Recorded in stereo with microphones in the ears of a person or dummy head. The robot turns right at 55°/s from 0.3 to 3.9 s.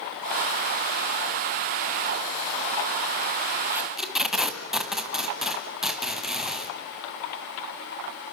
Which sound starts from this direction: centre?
Tape being pulled, at 3.7 s.